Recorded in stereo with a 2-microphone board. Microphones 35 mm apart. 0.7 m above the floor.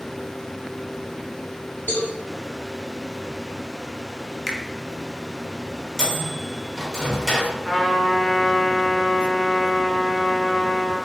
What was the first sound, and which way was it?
A cowbell, 60° left (ahead or behind).